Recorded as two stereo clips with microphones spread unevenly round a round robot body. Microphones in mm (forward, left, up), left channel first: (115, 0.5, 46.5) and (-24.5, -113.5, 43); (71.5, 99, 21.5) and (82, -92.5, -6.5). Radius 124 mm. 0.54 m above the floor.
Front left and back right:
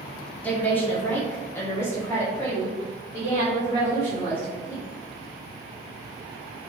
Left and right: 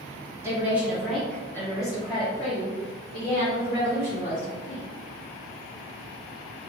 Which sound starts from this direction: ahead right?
A woman speaking, at 0.4 s.